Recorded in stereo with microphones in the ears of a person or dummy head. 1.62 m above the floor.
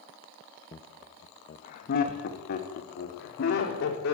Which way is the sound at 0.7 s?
15° left (ahead or behind).